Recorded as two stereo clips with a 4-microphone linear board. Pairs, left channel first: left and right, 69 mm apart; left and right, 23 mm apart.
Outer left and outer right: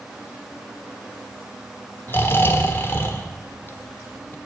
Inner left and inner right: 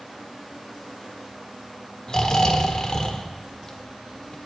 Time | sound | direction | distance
2.1 | snoring | 35° left (ahead or behind) | 1.2 m